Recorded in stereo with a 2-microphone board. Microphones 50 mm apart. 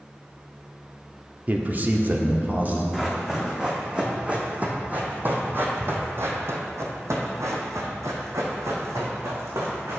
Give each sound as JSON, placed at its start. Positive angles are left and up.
{"t": 1.5, "sound": "a man speaking", "side_deg": -35, "distance_m": 0.8}
{"t": 2.9, "sound": "running footsteps", "side_deg": -10, "distance_m": 2.5}